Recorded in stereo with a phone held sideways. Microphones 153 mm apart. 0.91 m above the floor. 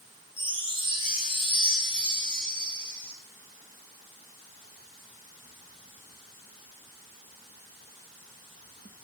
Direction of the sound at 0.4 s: 35° right (ahead or behind).